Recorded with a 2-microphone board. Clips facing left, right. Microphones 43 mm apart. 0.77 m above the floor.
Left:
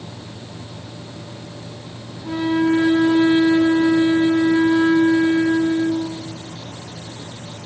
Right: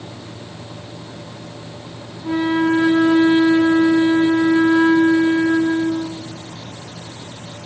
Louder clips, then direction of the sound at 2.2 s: Right 1 dB; 20° right (ahead or behind).